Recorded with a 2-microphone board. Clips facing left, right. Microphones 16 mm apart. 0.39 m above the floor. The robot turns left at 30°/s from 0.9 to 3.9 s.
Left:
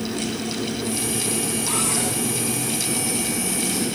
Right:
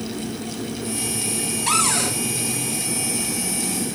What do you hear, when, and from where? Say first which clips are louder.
1.7 s a cupboard door: right 8 dB; 75° right (ahead or behind), 4 m